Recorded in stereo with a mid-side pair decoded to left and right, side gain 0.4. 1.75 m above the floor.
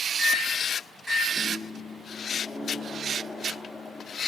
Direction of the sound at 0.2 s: 20° left.